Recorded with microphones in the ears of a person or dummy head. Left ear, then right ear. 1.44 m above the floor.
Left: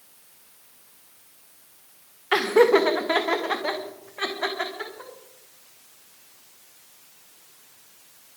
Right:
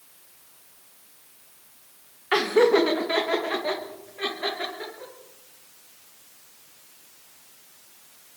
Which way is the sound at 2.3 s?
20° left (ahead or behind).